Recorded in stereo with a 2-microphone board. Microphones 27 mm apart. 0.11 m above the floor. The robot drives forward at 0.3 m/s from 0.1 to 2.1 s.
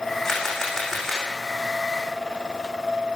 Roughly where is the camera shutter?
Centre.